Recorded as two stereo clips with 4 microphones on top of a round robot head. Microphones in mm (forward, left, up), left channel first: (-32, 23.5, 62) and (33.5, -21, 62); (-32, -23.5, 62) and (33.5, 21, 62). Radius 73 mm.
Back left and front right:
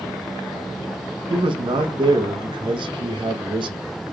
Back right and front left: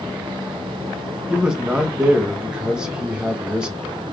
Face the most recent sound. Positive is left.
turn(degrees=-45)